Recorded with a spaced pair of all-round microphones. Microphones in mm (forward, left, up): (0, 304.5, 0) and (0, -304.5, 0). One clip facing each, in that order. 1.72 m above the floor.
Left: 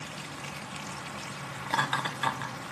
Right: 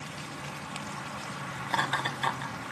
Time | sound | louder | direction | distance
1.7 | laughter | even | 35° left (ahead or behind) | 1.0 m